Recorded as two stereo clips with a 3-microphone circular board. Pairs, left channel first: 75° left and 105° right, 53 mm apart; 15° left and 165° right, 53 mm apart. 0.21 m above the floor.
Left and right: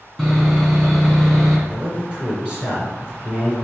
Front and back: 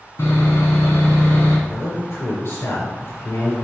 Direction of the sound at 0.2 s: Straight ahead.